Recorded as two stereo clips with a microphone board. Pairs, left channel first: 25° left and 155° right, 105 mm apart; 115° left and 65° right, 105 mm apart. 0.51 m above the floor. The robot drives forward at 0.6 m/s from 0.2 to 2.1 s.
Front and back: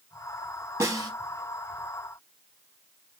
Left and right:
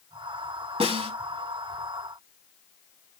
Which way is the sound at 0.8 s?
95° right.